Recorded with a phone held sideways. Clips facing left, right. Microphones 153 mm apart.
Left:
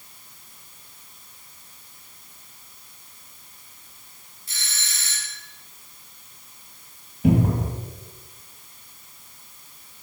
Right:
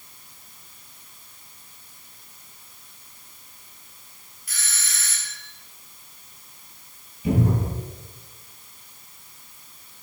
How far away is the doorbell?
About 1.5 m.